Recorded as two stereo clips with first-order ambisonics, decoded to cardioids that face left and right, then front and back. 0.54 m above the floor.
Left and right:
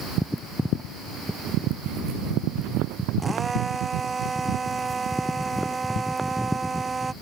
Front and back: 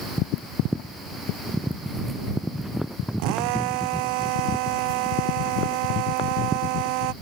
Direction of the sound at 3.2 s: 170° right.